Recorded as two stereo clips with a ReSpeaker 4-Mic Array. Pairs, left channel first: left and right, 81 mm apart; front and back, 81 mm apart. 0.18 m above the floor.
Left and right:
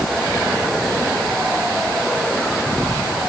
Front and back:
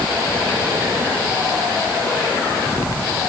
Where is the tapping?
I don't hear tapping.